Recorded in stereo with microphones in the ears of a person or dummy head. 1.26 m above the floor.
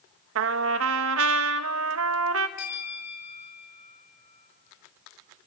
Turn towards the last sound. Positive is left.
turn(degrees=35)  # may be behind; listen again after turning